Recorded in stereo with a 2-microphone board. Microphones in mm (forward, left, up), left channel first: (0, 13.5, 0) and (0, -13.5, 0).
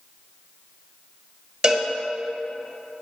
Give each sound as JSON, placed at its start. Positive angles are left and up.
{"t": 1.6, "sound": "a cowbell", "side_deg": -30, "distance_m": 1.6}